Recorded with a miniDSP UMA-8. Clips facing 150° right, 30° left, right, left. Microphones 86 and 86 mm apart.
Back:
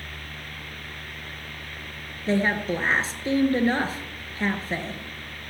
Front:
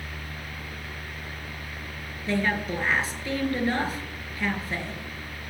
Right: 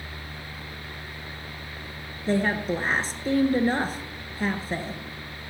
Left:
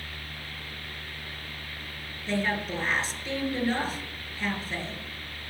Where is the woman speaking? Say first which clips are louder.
Back 3 dB, right 5 dB; 105° right, 2 m.